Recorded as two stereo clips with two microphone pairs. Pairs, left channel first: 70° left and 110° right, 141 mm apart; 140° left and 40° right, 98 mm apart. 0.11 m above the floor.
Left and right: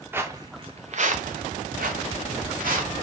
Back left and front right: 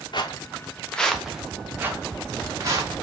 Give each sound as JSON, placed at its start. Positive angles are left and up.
{"t": 0.1, "sound": "footsteps", "azimuth_deg": 175, "distance_m": 0.6}